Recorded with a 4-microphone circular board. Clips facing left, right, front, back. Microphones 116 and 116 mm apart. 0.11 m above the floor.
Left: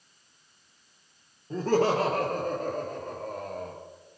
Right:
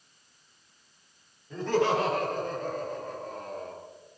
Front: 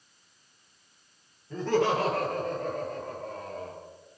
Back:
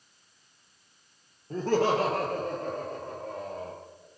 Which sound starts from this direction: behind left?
Laughter, at 1.5 s.